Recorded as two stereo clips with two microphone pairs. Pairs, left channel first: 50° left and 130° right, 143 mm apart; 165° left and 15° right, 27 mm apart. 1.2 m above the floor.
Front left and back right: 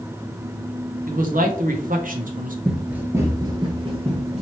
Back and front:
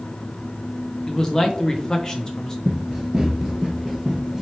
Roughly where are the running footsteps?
Ahead right.